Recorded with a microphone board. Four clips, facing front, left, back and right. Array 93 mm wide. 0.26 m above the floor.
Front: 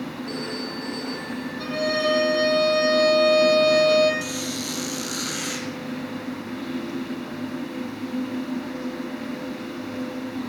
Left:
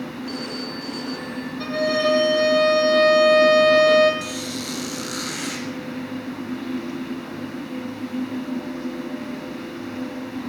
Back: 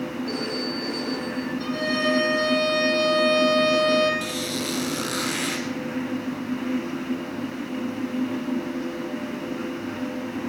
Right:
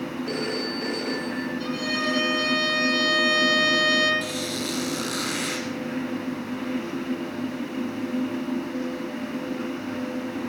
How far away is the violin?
About 6 m.